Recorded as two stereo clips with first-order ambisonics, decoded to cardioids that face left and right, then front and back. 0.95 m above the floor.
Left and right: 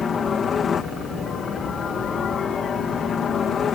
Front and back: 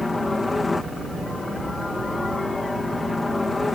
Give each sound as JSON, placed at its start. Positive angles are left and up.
{"t": 0.0, "sound": "a helicopter", "azimuth_deg": 65}